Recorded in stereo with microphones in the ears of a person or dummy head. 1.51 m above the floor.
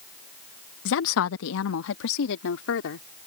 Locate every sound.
0.8 s a woman speaking: 70° left (ahead or behind)